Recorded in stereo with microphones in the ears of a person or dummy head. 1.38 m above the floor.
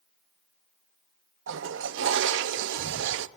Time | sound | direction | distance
1.5 | a toilet flushing | 70° right (ahead or behind) | 0.6 m